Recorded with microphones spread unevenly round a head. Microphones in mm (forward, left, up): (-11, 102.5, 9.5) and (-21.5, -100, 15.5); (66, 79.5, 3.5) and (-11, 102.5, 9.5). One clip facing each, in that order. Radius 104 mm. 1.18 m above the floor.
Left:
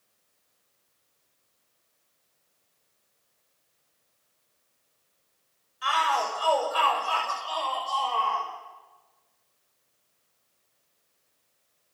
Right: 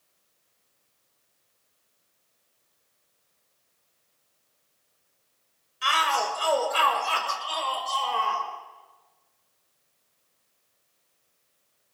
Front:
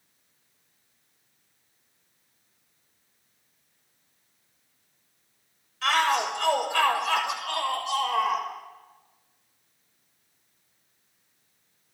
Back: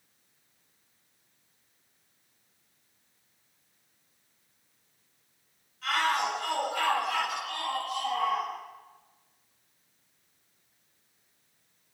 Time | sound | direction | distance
5.8 | a shout | 35° right | 6.5 m